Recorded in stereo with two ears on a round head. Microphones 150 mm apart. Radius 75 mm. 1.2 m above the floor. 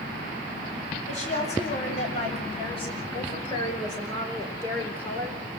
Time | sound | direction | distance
1.1 | a woman speaking | 45° left (ahead or behind) | 9 m